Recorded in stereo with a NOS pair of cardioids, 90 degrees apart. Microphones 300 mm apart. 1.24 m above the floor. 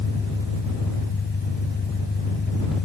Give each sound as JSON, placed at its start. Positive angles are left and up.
{"t": 0.0, "sound": "an engine running", "azimuth_deg": 35}